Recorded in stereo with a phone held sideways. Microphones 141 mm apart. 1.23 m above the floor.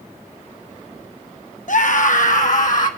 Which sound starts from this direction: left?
A scream, at 1.7 s.